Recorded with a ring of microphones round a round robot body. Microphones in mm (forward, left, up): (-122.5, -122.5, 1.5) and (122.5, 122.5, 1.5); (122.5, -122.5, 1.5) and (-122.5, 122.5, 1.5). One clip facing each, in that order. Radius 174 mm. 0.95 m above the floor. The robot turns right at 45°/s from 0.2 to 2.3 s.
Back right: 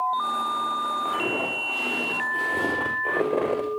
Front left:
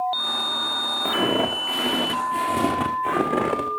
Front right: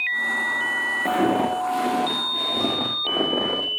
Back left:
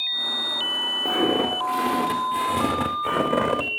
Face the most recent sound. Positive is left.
turn(degrees=95)